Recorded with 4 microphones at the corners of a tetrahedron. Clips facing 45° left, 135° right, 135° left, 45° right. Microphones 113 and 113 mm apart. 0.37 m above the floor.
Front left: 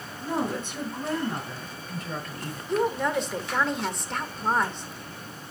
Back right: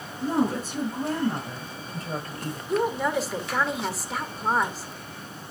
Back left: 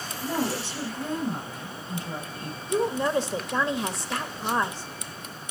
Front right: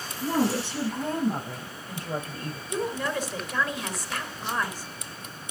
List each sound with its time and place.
0.2 s a woman speaking: 80° right, 6.5 m; by 2.6 s 75° right, 7 m
2.7 s a woman speaking: 145° left, 1.2 m